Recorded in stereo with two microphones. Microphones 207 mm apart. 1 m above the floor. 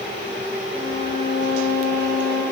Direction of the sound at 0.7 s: 50° left (ahead or behind).